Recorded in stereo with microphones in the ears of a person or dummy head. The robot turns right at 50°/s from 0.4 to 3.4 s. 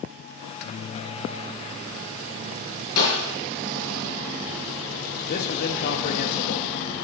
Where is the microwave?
105° left, 0.6 m; by 2.9 s 130° right, 0.6 m.